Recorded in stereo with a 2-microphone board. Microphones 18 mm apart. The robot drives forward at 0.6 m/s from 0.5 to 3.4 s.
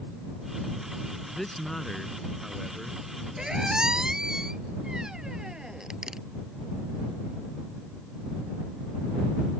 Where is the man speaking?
20° left (ahead or behind); by 3.0 s 10° left (ahead or behind).